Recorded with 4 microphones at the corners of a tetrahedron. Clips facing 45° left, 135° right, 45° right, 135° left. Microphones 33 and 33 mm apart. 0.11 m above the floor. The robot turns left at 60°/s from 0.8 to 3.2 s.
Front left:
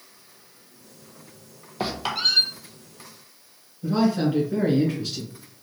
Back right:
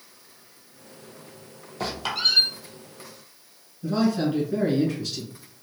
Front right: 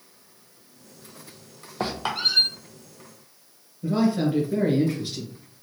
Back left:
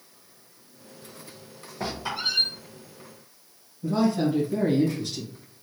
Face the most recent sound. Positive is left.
turn(degrees=-30)